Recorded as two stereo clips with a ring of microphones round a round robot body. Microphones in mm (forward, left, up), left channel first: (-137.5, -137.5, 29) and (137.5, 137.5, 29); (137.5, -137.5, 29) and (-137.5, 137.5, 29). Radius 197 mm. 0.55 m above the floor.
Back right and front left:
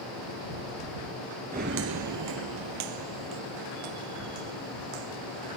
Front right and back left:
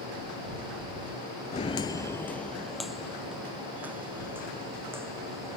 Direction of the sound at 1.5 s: 5° left.